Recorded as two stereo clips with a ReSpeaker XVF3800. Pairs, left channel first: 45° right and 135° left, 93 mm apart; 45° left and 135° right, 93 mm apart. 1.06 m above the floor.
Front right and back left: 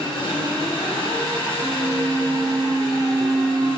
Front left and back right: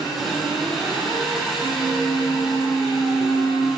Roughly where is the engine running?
Ahead right.